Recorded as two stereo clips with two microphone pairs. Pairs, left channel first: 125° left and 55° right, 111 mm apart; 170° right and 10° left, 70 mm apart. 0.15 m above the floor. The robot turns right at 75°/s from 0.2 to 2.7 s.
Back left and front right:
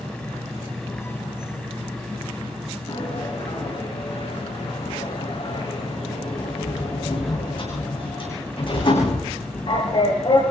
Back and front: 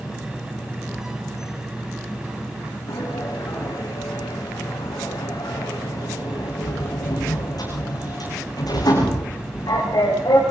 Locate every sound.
2.9 s a sliding door: 165° left, 8.5 m